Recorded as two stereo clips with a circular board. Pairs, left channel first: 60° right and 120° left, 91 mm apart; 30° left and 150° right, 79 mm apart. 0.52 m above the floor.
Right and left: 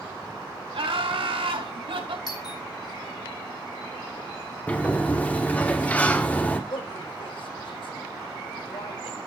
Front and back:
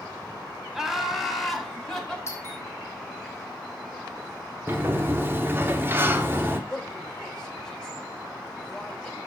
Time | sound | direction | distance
0.7 | laughter | 125° left | 3 m
2.3 | a doorbell | 25° right | 4 m
4.7 | a sliding door | 120° right | 1.4 m
6.7 | a man speaking | 50° right | 2 m